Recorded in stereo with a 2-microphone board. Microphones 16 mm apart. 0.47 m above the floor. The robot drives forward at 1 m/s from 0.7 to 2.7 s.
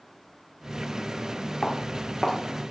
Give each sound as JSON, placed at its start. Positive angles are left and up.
{"t": 1.6, "sound": "footsteps", "side_deg": 15, "distance_m": 3.0}